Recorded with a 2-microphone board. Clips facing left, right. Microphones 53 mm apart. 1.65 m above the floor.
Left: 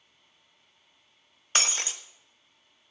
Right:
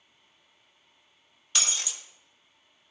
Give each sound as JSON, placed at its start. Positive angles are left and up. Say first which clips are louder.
{"t": 1.6, "sound": "breaking glass", "louder": "left 4 dB", "side_deg": 45, "distance_m": 1.1}